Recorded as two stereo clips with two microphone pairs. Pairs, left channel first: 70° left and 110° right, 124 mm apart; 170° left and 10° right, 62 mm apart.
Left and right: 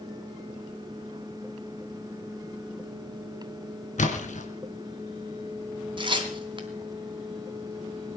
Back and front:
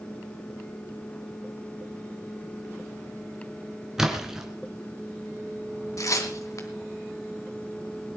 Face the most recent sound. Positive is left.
turn(degrees=-160)